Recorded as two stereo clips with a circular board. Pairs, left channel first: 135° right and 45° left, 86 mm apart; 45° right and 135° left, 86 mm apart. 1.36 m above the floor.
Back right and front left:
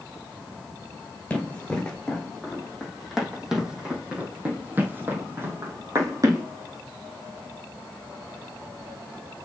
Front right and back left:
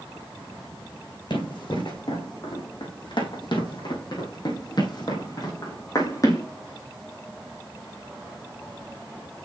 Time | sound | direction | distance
1.3 | running footsteps | 60° right | 3.5 m